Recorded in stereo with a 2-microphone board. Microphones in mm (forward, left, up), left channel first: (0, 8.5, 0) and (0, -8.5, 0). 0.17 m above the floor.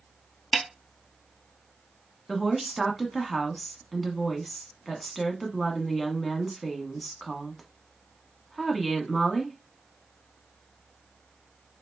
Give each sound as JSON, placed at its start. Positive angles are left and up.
{"t": 0.5, "sound": "a snare drum", "side_deg": -5, "distance_m": 0.8}
{"t": 2.3, "sound": "a woman speaking", "side_deg": 5, "distance_m": 1.1}